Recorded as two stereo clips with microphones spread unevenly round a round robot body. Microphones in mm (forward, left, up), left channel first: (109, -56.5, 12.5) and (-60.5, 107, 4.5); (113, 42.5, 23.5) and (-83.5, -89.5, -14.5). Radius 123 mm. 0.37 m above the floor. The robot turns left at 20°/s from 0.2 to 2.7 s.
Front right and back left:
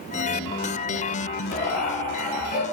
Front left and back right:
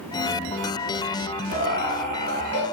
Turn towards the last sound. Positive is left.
turn(degrees=-145)